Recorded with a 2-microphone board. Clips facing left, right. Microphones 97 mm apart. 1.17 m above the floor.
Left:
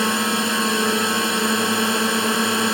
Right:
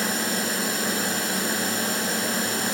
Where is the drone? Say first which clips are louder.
Left 6 dB; 65° left (ahead or behind).